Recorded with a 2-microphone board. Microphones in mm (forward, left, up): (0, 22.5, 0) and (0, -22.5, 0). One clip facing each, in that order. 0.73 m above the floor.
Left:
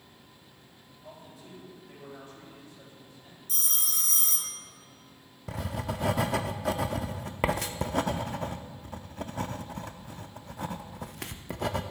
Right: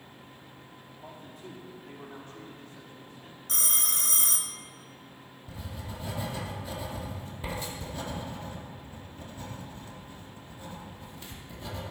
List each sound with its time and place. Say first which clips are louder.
1.0 s a man speaking: right 2 dB; 70° right (ahead or behind), 4 m
3.5 s a phone ringing: right 3 dB; 55° right (ahead or behind), 0.6 m
5.5 s writing: left 8 dB; 75° left (ahead or behind), 0.5 m